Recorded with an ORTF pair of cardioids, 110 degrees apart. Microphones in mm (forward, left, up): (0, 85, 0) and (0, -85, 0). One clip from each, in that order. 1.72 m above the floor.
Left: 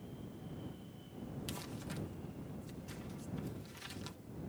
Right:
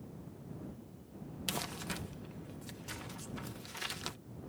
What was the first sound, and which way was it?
Crumpling, 60° right.